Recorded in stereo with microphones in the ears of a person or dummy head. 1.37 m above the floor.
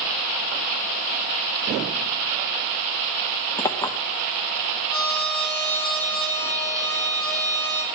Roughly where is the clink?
Centre.